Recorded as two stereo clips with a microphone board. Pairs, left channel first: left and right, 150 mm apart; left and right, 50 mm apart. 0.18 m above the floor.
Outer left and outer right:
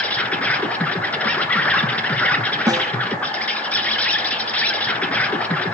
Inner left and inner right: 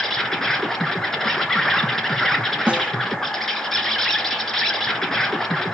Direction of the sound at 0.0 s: 10° left (ahead or behind).